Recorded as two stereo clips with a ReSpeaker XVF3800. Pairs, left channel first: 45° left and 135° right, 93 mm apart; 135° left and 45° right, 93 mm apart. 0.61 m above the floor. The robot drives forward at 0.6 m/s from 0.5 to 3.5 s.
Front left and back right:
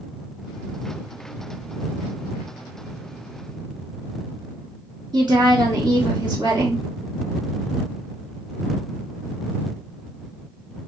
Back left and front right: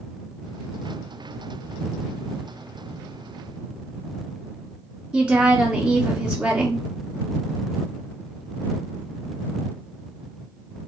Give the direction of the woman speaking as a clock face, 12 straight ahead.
4 o'clock.